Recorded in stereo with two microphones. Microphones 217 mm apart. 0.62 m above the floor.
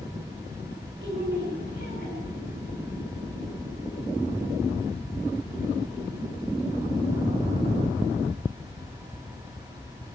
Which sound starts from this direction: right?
A woman speaking, at 1.0 s.